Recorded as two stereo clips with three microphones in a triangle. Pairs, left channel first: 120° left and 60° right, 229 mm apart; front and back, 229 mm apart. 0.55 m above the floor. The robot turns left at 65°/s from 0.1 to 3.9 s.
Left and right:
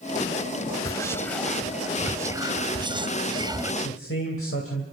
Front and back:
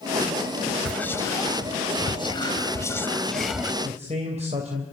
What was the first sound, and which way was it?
Whispering, 80° left.